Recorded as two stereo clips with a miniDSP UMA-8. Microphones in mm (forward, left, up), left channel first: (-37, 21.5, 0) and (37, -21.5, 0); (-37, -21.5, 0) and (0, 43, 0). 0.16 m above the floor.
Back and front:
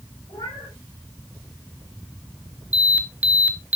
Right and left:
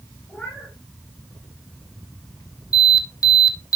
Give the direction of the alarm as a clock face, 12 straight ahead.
3 o'clock.